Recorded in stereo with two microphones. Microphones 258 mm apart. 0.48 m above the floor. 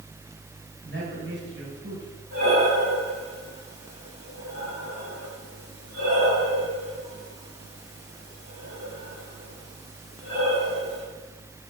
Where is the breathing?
70° right (ahead or behind), 4.5 m.